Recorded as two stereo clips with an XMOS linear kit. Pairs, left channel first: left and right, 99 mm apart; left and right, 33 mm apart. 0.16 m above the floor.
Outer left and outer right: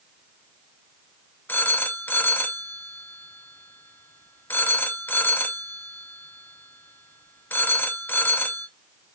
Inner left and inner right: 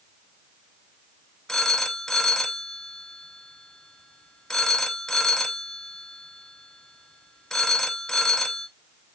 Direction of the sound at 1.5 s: 20° left (ahead or behind).